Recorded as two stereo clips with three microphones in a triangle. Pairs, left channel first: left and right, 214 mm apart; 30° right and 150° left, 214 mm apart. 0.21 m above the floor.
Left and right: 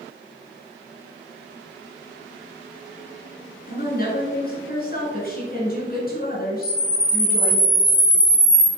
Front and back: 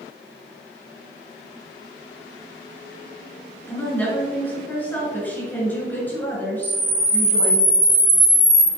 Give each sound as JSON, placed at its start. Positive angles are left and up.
{"t": 3.7, "sound": "a woman speaking", "azimuth_deg": 50, "distance_m": 2.5}
{"t": 6.6, "sound": "a camera shutter", "azimuth_deg": 125, "distance_m": 1.7}